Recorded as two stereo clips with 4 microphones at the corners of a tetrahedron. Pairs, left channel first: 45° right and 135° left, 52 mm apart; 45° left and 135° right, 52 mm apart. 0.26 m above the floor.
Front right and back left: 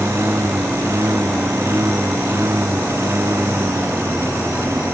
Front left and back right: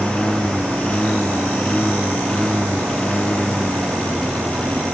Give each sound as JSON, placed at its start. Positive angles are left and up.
{"t": 0.0, "sound": "a lawn mower", "azimuth_deg": 115}